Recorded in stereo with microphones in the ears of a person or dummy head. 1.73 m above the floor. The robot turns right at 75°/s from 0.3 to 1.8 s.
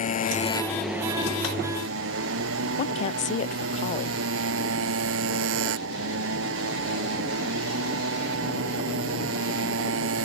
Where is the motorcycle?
140° left; by 10.2 s 110° right.